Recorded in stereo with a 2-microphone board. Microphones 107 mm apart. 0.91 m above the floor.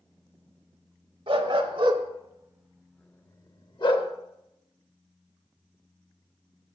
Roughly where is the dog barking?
Right.